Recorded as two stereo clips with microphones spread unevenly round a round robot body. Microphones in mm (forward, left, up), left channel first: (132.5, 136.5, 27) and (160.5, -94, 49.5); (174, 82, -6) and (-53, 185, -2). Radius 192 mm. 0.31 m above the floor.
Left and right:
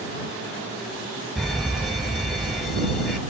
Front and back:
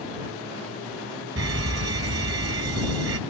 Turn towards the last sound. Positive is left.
turn(degrees=-175)